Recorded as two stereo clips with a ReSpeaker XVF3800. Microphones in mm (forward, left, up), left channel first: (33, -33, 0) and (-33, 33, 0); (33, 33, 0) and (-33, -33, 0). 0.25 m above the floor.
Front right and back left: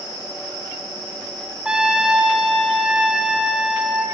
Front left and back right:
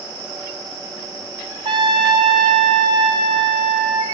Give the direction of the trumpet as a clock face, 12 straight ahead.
5 o'clock.